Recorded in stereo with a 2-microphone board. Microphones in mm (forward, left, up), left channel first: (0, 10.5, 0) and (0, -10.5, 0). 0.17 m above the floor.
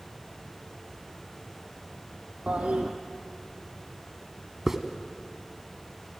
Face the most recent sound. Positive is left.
turn(degrees=-20)  # may be behind; listen again after turning